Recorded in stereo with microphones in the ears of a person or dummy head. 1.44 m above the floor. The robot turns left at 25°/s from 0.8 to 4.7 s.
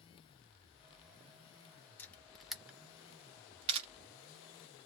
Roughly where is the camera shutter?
Centre.